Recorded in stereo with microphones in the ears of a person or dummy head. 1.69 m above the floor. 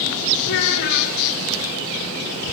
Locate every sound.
0.4 s a child speaking: 70° left (ahead or behind), 4 m